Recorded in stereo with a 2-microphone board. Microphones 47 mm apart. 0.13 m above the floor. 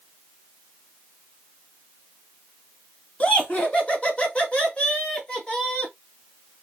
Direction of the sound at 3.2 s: 30° left (ahead or behind).